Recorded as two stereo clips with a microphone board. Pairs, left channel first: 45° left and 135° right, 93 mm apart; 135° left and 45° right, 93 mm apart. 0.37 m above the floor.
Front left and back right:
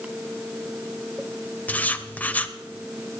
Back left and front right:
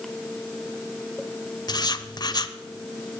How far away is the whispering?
No whispering in this recording.